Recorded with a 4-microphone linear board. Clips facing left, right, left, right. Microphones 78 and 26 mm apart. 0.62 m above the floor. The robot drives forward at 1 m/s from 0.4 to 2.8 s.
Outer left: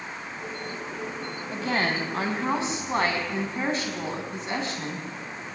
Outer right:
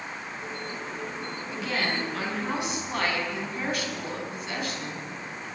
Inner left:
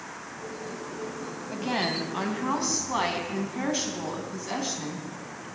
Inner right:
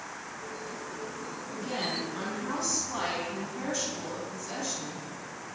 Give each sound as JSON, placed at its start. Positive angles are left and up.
{"t": 1.5, "sound": "a woman speaking", "side_deg": 40, "distance_m": 4.0}